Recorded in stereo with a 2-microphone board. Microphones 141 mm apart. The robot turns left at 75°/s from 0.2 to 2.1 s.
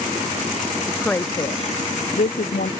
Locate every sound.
0.9 s a woman speaking: 170° right; by 2.7 s 95° left